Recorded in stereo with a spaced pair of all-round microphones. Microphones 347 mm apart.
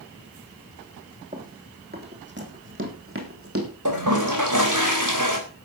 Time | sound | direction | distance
1.3 | running footsteps | 20° right (ahead or behind) | 3 m
3.9 | a toilet flushing | 60° right (ahead or behind) | 3.5 m